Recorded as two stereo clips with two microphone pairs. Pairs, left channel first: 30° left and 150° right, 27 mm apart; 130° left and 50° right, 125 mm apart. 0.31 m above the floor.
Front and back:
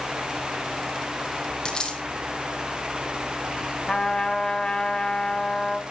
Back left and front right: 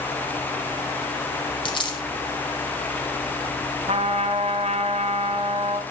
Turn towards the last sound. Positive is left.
turn(degrees=-30)